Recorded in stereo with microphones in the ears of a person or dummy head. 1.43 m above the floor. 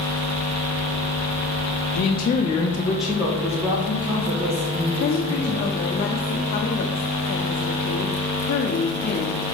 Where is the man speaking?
55° left (ahead or behind), 0.6 m; by 5.7 s 30° right (ahead or behind), 2.5 m.